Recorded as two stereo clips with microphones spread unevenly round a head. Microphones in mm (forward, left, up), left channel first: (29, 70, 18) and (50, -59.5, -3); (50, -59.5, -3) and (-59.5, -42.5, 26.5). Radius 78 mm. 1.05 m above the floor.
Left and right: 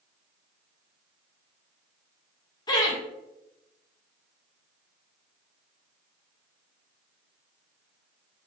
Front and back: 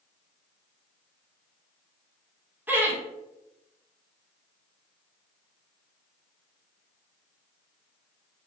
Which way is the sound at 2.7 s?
80° left.